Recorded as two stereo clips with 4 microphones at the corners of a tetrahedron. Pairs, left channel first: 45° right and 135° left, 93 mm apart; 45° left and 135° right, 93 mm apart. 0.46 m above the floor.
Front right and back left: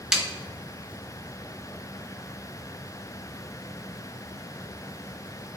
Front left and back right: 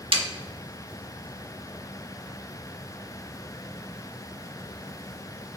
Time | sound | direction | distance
0.1 | a snare drum | 140° right | 0.6 m